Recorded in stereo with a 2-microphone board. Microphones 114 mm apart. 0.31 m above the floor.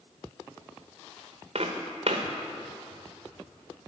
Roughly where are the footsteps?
Right.